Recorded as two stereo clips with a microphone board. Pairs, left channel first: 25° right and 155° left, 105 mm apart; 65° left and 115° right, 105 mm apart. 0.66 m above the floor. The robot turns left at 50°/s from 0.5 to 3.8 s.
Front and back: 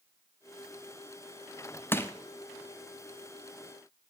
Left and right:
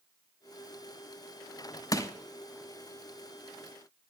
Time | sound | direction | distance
1.9 | crushing | 35° left | 1.0 m